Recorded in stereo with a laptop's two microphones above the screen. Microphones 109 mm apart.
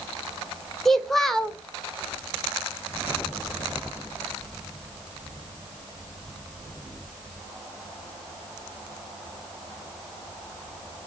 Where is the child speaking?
5° left (ahead or behind), 0.8 m.